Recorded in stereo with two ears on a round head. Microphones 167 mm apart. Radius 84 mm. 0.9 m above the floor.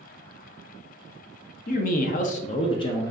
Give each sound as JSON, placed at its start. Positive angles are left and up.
{"t": 1.7, "sound": "a man speaking", "side_deg": 45, "distance_m": 0.6}